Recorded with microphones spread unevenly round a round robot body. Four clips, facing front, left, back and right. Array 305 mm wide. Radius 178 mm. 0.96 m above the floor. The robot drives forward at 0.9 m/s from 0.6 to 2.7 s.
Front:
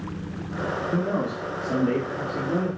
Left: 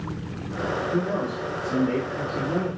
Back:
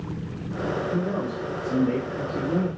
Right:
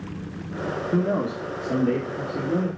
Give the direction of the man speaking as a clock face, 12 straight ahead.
2 o'clock.